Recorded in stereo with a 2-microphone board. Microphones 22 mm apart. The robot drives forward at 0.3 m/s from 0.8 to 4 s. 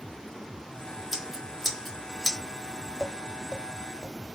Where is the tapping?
25° left (ahead or behind), 1.5 m; by 4.1 s 20° left (ahead or behind), 1.8 m.